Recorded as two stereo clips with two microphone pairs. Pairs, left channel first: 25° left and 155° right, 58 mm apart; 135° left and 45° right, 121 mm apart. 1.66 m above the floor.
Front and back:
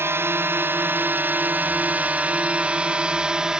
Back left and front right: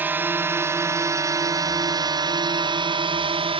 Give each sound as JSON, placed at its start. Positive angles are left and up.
{"t": 0.0, "sound": "a drone", "azimuth_deg": -115}